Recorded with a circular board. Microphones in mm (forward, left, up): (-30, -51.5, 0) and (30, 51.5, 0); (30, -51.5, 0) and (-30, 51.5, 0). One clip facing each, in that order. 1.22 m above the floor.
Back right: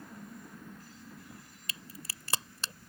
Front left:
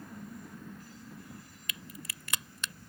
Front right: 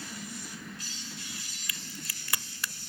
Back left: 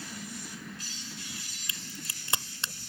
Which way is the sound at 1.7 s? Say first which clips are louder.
Front left 1 dB, even; 175° right.